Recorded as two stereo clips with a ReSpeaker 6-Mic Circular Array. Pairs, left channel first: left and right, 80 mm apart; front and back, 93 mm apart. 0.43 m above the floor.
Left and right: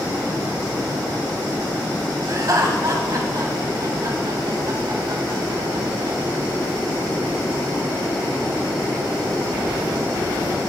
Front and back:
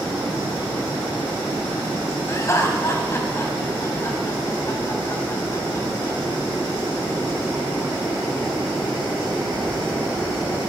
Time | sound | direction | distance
2.3 | laughter | 55° right | 3 m